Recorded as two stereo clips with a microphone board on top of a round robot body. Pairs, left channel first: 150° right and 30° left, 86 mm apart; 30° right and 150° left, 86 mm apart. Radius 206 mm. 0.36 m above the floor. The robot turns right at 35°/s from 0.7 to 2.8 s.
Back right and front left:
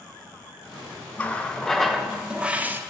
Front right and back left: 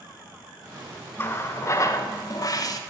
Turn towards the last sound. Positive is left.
turn(degrees=-25)